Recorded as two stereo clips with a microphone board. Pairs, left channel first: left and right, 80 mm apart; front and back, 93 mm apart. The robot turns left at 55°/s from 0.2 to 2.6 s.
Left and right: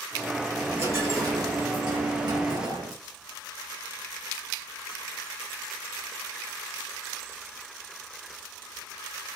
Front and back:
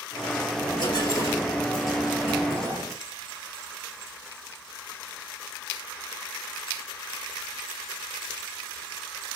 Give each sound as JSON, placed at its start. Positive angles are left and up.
{"t": 0.6, "sound": "a dropped coin", "azimuth_deg": -15, "distance_m": 2.0}